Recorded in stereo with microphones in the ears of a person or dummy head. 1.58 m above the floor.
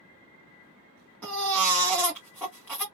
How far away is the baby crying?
About 1.0 m.